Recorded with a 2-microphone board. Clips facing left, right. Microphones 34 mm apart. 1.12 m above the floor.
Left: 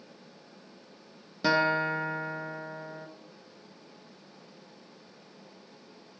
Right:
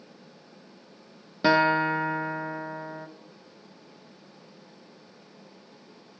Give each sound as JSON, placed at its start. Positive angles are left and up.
{"t": 1.4, "sound": "a guitar", "side_deg": -20, "distance_m": 0.6}